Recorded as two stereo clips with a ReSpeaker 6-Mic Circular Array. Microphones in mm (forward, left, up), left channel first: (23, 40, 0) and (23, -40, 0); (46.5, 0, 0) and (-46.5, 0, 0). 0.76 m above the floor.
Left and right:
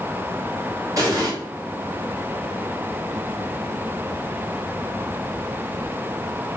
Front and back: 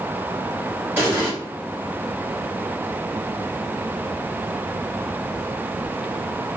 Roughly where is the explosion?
Behind right.